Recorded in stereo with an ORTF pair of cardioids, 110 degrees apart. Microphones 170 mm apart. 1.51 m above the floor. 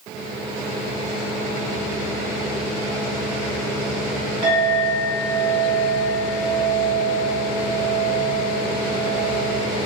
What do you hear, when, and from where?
4.4 s a clink: 40° right, 1.2 m